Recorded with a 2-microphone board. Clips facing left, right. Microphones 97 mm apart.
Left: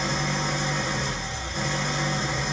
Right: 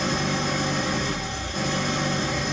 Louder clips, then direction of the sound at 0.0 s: Right 2 dB; 75° right (ahead or behind).